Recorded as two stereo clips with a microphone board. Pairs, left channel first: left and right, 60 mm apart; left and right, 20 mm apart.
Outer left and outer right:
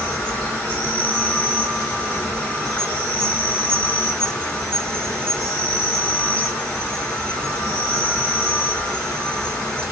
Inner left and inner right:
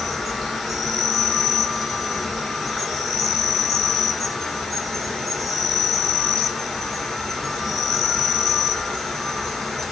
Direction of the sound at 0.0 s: 15° left (ahead or behind).